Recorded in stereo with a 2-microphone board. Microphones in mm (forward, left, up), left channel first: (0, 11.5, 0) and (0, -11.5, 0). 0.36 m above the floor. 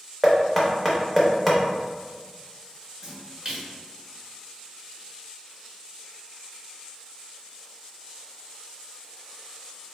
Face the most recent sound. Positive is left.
turn(degrees=-30)  # may be behind; listen again after turning